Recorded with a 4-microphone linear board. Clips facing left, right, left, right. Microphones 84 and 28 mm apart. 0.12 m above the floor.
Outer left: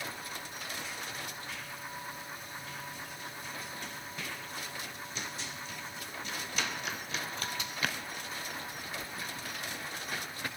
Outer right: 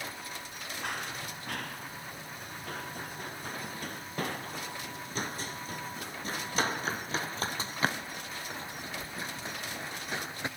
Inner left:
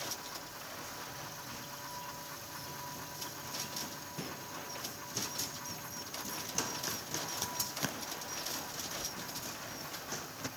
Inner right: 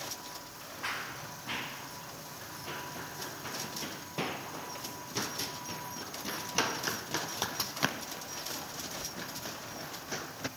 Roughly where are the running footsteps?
Right.